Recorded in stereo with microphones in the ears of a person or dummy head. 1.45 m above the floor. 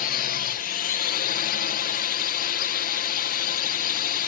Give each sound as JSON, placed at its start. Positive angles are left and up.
{"t": 0.0, "sound": "a drone", "side_deg": 40}